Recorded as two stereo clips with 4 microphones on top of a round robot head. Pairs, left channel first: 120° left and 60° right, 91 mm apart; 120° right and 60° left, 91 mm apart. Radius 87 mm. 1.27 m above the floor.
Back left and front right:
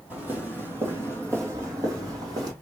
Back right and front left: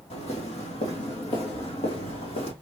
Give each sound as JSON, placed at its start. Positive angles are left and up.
{"t": 0.1, "sound": "footsteps", "azimuth_deg": -130, "distance_m": 3.0}